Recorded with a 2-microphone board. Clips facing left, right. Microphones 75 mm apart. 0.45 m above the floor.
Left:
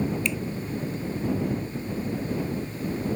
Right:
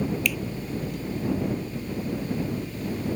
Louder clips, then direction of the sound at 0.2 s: Right 1 dB; 25° left (ahead or behind).